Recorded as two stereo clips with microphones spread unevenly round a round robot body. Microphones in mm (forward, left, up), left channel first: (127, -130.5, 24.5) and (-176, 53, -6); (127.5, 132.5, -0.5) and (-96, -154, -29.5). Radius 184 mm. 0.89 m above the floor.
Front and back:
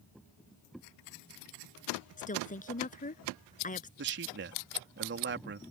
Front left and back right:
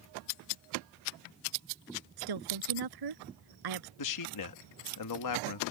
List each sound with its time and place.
2.2 s a woman speaking: 100° right
4.0 s a man speaking: 90° left